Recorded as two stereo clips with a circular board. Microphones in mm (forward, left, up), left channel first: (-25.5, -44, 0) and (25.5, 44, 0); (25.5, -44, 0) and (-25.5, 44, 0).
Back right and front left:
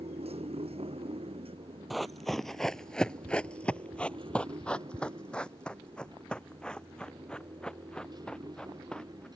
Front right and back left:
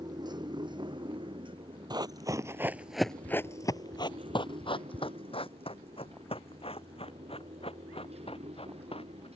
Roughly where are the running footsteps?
Behind left.